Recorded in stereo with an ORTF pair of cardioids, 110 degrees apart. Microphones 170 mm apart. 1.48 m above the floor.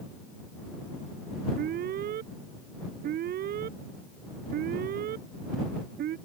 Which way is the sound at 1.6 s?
65° right.